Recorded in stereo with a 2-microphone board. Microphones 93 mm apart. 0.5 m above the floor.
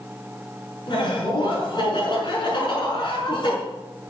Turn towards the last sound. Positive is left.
turn(degrees=55)  # may be behind; listen again after turning